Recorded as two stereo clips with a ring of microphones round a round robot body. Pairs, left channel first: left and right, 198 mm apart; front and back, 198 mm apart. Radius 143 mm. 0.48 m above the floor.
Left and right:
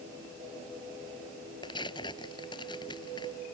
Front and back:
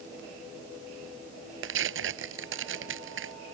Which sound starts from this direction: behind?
Tearing paper, at 1.6 s.